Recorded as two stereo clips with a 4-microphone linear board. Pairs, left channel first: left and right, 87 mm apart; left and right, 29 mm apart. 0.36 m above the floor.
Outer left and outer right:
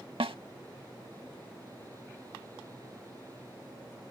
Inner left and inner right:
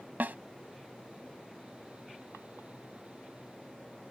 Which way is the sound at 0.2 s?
80° right.